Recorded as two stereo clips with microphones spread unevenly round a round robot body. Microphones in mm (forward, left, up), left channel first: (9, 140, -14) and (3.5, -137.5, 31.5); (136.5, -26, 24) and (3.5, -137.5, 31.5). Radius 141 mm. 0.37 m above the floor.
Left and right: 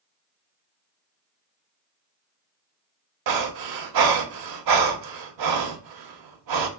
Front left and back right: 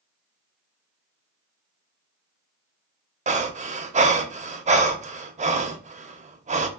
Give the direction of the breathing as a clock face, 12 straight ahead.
3 o'clock.